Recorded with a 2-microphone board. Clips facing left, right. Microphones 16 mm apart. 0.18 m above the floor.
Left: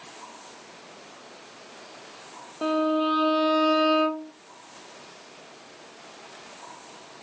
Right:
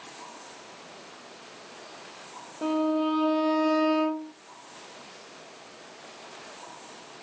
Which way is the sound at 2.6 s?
85° left.